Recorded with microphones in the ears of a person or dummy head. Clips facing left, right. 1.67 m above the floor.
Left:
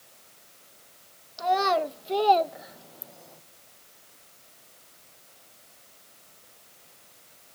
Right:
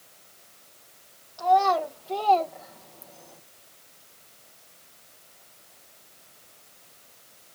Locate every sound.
1.4 s a child speaking: 35° left (ahead or behind), 1.8 m; by 3.4 s 10° left (ahead or behind), 0.9 m